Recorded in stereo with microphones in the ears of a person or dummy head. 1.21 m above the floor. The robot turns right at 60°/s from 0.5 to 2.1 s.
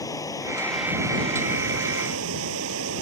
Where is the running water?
165° left; by 3.0 s 100° right.